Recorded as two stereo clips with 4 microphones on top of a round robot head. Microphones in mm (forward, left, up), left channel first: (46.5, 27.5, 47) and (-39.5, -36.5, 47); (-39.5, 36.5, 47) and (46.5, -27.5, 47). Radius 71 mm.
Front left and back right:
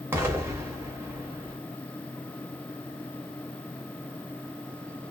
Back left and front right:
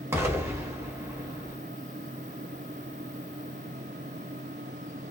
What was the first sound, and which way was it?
An explosion, 90° right.